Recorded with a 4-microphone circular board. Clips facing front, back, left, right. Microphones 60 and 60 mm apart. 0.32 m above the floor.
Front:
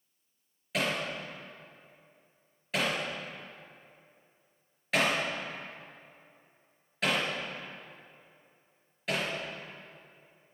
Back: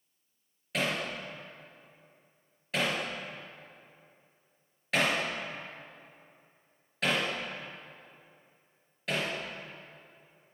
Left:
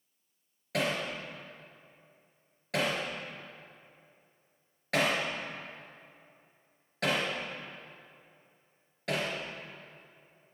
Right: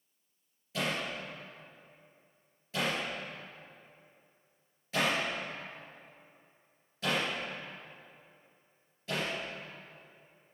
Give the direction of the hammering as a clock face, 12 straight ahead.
9 o'clock.